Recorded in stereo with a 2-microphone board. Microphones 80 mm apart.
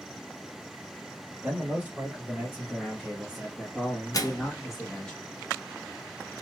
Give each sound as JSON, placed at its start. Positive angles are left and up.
{"t": 1.4, "sound": "a man speaking", "side_deg": -20, "distance_m": 1.2}
{"t": 4.1, "sound": "a microwave", "side_deg": 45, "distance_m": 0.5}